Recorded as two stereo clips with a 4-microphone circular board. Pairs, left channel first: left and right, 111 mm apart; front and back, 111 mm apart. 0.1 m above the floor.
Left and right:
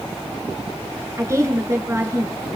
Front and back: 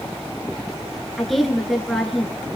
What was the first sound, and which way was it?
A woman speaking, 90° right.